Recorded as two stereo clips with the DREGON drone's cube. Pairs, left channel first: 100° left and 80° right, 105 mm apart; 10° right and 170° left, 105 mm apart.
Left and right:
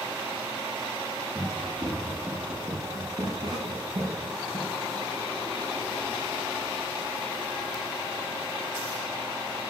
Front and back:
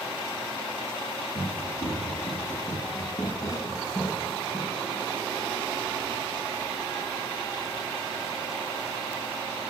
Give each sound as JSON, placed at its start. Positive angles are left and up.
{"t": 1.4, "sound": "running footsteps", "azimuth_deg": -25, "distance_m": 2.0}